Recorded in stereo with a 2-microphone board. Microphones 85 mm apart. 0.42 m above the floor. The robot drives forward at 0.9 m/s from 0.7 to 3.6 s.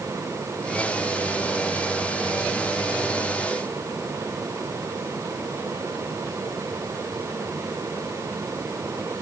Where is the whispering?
No whispering in this recording.